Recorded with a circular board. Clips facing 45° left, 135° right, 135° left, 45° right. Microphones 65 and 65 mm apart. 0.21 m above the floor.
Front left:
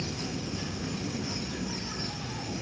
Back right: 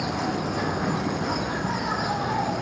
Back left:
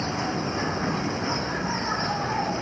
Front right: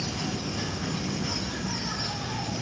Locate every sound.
0.0 s an insect: 170° right